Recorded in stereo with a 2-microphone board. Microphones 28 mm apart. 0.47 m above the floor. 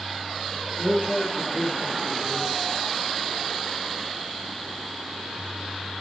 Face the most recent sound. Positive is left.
turn(degrees=-45)  # may be behind; listen again after turning